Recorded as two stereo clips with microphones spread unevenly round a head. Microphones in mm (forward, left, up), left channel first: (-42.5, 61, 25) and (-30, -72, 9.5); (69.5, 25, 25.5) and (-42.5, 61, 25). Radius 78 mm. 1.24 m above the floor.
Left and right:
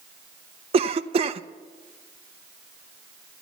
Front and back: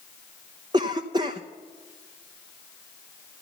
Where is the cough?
130° right, 0.6 m.